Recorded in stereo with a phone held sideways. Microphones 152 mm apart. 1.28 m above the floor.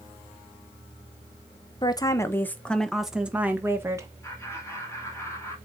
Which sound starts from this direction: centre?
Laughter, at 4.2 s.